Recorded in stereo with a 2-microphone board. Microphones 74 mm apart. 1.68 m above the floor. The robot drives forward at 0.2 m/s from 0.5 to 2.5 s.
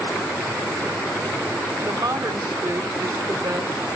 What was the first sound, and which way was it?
A woman speaking, 60° right (ahead or behind).